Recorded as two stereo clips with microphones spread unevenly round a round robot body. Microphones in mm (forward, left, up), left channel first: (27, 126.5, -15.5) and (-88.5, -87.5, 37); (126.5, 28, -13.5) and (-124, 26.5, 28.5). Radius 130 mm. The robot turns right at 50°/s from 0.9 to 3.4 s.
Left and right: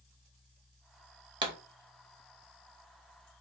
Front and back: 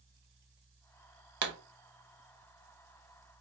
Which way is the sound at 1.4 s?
175° left.